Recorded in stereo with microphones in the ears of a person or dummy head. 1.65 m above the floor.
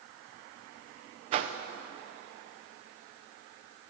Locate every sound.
1.3 s a whoosh: 35° right (ahead or behind), 0.8 m